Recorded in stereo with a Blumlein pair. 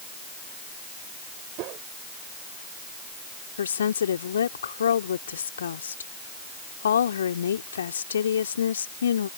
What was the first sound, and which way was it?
A whoosh, 40° right.